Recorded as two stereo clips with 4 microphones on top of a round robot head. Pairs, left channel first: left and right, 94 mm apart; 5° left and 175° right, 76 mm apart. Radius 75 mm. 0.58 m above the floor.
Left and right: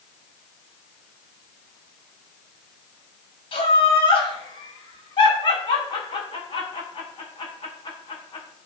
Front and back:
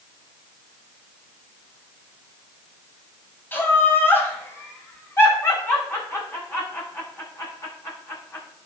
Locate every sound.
3.5 s laughter: 70° left, 5.5 m; by 8.4 s 60° left, 9 m